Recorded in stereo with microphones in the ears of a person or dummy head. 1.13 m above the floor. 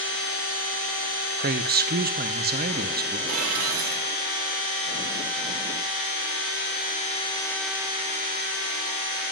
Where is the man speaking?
40° right (ahead or behind), 0.7 m.